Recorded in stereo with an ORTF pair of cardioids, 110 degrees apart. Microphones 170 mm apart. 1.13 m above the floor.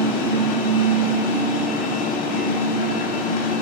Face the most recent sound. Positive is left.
turn(degrees=55)